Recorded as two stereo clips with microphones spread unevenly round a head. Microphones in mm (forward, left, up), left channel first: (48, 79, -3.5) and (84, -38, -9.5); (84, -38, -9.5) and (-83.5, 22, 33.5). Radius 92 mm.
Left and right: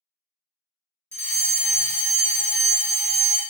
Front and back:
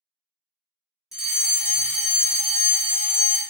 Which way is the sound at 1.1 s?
35° left.